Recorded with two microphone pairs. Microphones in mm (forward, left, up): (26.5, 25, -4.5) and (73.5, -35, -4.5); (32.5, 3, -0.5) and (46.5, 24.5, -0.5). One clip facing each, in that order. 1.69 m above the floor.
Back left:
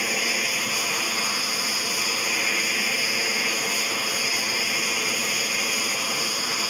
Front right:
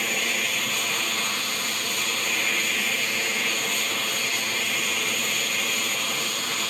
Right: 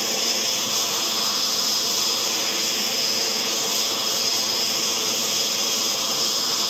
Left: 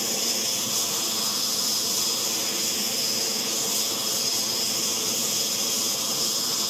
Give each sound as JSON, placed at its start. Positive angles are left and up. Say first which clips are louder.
{"t": 0.0, "sound": "an aircraft", "louder": "back left 1 dB, right 3 dB", "azimuth_deg": -160}